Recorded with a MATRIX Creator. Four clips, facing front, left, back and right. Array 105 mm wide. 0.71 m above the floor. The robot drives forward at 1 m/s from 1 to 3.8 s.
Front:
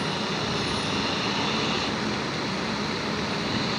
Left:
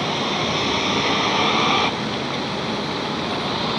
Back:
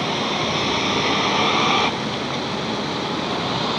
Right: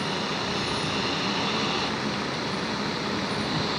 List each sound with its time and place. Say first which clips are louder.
0.0 s a vehicle: left 6 dB, back 6 dB; 135° left; by 3.8 s 145° left